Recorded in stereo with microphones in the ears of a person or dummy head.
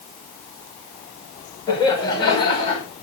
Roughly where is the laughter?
Left.